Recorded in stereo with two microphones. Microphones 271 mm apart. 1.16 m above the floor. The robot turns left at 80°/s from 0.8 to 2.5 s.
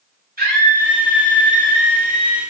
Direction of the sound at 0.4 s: 35° right.